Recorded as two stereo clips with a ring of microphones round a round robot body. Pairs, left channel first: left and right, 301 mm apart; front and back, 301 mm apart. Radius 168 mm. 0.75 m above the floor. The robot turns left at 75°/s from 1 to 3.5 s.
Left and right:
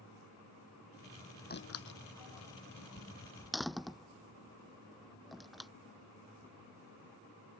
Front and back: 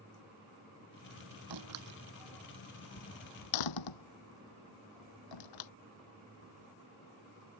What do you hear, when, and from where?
1.5 s a door slam: 150° left; by 5.7 s straight ahead